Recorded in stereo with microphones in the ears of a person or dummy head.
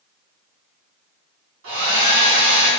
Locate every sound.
1.6 s a hair dryer: 80° right, 1.7 m